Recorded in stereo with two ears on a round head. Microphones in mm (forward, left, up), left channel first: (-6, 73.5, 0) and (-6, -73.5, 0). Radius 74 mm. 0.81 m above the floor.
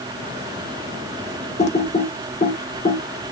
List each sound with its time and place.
1.6 s typing on a keyboard: 45° left (ahead or behind), 0.5 m